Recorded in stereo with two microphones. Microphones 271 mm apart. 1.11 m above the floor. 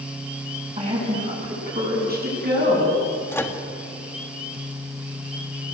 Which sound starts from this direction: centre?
A microwave, at 3.3 s.